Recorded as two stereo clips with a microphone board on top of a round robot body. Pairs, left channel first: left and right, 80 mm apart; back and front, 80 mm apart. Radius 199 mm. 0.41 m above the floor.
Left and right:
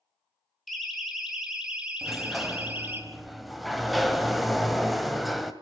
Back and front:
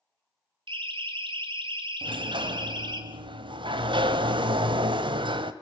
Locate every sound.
0.7 s a siren: straight ahead, 5.5 m; by 3.0 s 25° right, 4.5 m
2.0 s a sliding door: straight ahead, 2 m